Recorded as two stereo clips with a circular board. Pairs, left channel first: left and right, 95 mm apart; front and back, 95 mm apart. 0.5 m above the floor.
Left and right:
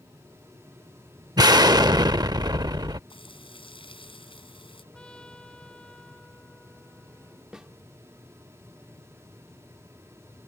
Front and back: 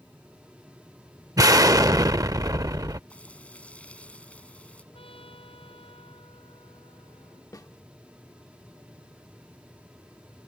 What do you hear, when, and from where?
1.4 s an explosion: 130° right
3.1 s frying: 75° left
4.9 s a trumpet: 10° left
7.5 s a snare drum: 10° right